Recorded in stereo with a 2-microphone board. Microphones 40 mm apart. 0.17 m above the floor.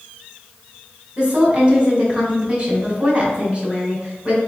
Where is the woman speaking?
30° right (ahead or behind), 1.7 m.